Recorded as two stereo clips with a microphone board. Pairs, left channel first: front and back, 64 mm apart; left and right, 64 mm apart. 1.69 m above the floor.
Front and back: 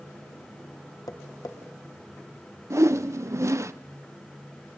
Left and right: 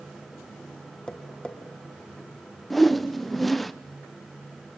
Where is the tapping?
15° left, 2 m.